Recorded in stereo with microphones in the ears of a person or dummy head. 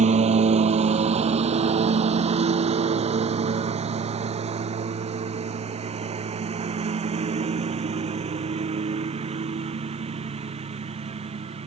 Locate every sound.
0.0 s a lawn mower: 35° right (ahead or behind); by 11.7 s 30° right (ahead or behind)